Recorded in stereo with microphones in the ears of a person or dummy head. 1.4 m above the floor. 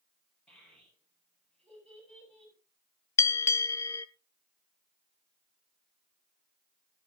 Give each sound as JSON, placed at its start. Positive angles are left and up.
{"t": 0.5, "sound": "a child speaking", "side_deg": 10, "distance_m": 6.5}
{"t": 3.2, "sound": "a bell", "side_deg": 15, "distance_m": 0.5}